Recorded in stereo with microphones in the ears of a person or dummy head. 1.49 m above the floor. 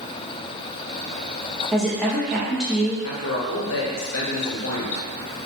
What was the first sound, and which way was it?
A woman speaking, centre (ahead or behind).